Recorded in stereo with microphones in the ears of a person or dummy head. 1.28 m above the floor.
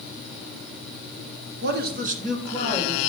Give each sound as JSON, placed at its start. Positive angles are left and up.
{"t": 1.6, "sound": "a man speaking", "side_deg": -50, "distance_m": 0.8}